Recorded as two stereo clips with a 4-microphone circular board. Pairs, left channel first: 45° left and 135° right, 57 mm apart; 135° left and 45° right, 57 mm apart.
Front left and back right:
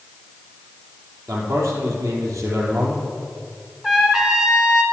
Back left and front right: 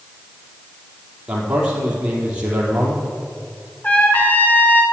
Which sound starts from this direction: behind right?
A man speaking, at 1.3 s.